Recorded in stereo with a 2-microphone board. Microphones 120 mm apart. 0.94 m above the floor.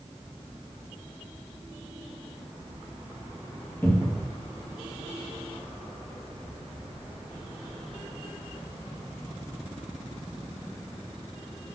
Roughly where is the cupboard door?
Centre.